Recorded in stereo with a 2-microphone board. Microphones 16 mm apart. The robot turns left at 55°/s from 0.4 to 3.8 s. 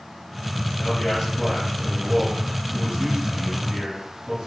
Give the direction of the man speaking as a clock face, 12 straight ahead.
11 o'clock.